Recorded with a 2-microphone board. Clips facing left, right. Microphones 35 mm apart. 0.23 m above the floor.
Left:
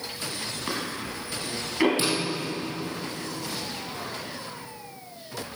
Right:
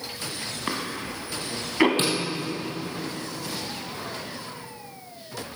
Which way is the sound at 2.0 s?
50° right (ahead or behind).